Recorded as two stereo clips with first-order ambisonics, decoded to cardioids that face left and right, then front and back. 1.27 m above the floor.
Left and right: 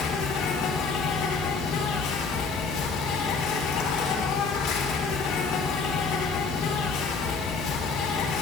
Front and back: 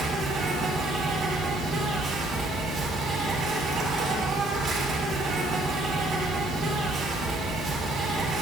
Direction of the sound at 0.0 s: 115° left.